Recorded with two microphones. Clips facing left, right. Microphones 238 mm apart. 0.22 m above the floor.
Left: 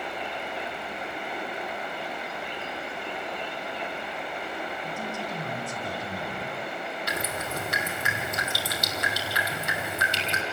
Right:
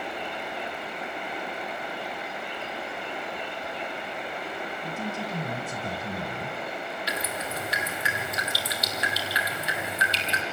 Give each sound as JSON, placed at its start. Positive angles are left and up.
{"t": 4.8, "sound": "a man speaking", "side_deg": -20, "distance_m": 2.0}
{"t": 7.1, "sound": "dripping", "side_deg": 50, "distance_m": 1.9}